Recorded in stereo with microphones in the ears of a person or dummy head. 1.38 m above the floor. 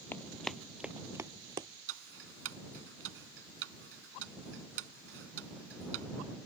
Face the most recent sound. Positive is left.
turn(degrees=-70)  # may be behind; listen again after turning